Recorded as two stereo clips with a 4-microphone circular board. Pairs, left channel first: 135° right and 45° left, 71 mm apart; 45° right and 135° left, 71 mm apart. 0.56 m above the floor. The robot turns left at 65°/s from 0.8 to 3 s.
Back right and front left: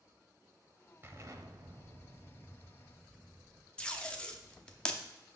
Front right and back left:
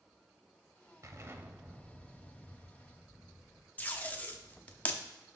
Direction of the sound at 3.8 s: 80° right.